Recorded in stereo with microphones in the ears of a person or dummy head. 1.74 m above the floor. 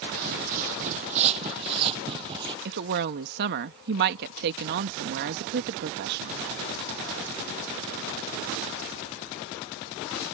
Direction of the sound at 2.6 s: 55° right (ahead or behind).